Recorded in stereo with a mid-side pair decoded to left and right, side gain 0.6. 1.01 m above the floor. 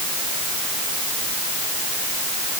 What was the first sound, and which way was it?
Only background noise.